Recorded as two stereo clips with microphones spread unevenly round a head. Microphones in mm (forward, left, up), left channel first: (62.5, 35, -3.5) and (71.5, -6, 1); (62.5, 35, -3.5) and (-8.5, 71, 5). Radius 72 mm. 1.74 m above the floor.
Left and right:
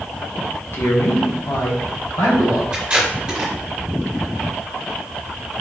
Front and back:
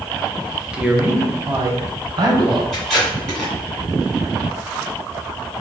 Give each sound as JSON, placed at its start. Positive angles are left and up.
{"t": 0.7, "sound": "a man speaking", "azimuth_deg": 75, "distance_m": 0.9}
{"t": 2.7, "sound": "tape being pulled", "azimuth_deg": -120, "distance_m": 1.4}